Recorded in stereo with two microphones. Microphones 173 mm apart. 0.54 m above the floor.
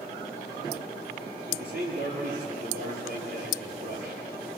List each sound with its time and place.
1.5 s a man speaking: 85° right, 9 m